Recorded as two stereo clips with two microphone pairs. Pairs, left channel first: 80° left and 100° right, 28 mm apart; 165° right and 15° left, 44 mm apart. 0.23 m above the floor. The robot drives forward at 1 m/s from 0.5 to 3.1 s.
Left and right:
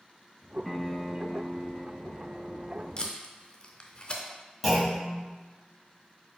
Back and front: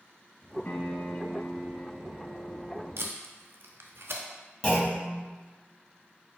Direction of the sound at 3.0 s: 25° left.